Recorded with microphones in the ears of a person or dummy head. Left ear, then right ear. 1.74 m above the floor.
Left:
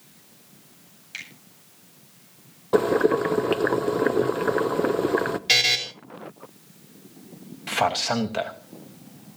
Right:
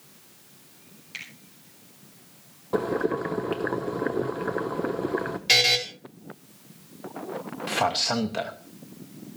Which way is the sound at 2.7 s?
25° left (ahead or behind).